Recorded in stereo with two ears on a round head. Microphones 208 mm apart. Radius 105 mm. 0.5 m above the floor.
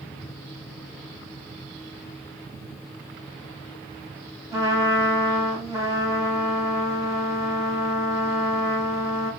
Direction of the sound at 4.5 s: 15° right (ahead or behind).